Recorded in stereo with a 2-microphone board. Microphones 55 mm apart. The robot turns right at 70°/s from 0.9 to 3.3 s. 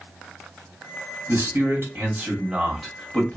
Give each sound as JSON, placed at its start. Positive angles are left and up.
{"t": 1.3, "sound": "a man speaking", "azimuth_deg": -105, "distance_m": 1.4}